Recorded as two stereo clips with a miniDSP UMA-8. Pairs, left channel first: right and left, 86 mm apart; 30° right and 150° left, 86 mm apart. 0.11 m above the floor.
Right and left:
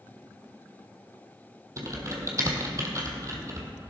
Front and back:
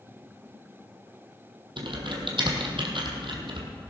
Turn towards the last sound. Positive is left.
turn(degrees=140)